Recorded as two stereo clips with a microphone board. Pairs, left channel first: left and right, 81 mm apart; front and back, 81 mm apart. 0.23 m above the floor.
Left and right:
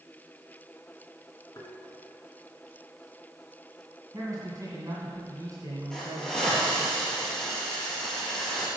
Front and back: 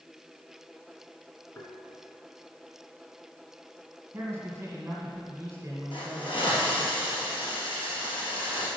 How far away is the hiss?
About 2.5 m.